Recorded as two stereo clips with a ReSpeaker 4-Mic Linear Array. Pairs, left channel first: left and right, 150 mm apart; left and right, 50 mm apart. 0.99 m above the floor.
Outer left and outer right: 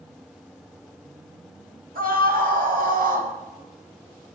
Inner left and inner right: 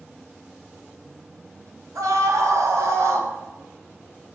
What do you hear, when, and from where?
1.9 s a scream: 80° right, 6 m; by 3.3 s 70° right (ahead or behind), 4.5 m